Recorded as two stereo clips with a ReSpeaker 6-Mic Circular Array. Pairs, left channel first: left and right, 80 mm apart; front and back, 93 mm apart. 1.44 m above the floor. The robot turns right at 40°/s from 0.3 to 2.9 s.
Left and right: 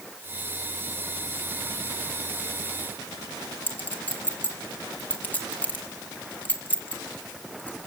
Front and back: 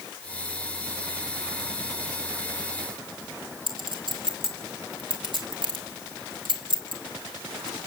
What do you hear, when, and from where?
3.7 s a clink: 155° left, 2.5 m